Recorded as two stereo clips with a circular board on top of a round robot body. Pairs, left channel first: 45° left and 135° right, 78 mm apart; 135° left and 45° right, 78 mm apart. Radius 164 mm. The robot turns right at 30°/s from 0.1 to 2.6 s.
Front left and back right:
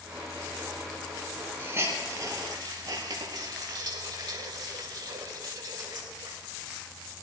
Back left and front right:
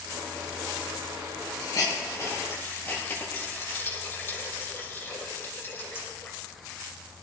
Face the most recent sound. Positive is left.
turn(degrees=-165)